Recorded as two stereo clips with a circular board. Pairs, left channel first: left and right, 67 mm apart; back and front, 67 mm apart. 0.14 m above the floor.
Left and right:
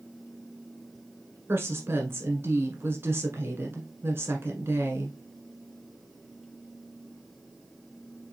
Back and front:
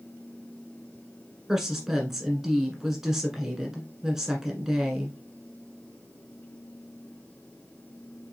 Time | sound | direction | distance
1.5 | a woman speaking | 80° right | 1.3 m